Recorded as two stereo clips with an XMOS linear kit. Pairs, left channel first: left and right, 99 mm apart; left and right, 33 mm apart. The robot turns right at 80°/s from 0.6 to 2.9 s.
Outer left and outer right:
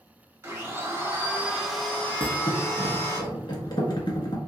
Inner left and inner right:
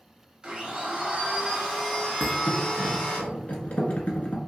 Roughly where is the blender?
Right.